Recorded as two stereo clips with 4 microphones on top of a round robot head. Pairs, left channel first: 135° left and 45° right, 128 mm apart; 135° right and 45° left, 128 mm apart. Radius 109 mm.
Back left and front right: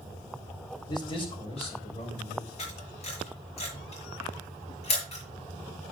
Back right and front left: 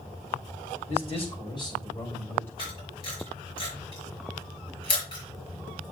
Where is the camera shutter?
175° left, 6 m.